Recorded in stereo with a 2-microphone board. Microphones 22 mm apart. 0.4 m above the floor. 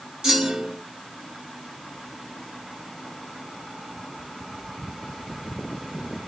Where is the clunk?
35° right (ahead or behind), 1.7 m.